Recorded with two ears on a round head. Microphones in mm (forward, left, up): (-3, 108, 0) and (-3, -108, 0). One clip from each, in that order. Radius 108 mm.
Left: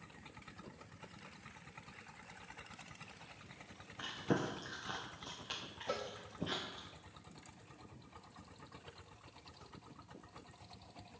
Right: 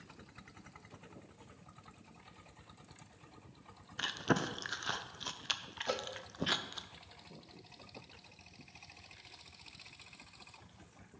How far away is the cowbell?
About 0.8 m.